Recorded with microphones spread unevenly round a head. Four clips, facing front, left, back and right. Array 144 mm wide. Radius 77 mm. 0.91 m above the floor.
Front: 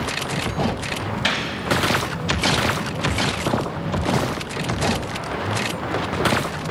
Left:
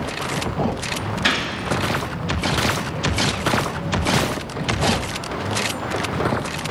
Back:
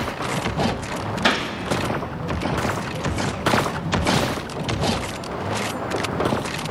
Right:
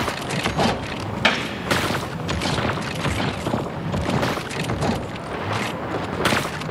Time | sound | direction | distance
1.2 | a gunshot | 145° right | 1.0 m